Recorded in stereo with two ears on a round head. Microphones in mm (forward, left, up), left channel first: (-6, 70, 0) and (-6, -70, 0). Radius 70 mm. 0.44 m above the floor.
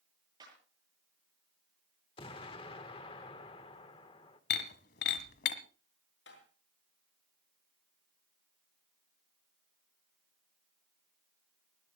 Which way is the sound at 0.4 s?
25° right (ahead or behind).